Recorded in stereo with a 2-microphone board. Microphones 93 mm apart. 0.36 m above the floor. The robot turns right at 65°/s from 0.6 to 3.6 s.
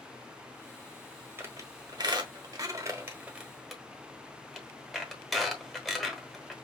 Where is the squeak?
25° right (ahead or behind), 1.2 m; by 6.5 s 5° left (ahead or behind), 1.2 m.